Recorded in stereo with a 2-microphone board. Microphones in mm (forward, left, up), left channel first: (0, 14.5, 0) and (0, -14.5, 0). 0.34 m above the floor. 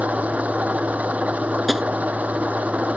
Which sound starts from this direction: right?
An engine running, at 0.0 s.